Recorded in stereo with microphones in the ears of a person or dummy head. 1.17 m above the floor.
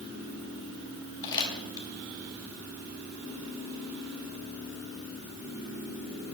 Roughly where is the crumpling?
Left.